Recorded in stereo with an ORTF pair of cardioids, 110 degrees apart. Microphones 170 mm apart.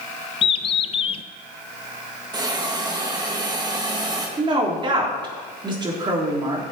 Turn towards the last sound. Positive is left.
turn(degrees=-30)